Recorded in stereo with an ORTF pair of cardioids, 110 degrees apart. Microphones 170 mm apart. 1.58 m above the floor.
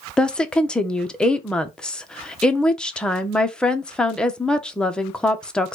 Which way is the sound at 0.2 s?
5° left.